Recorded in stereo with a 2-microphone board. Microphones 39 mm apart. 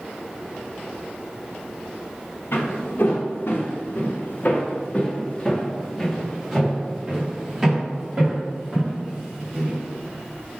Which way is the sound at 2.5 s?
75° left (ahead or behind).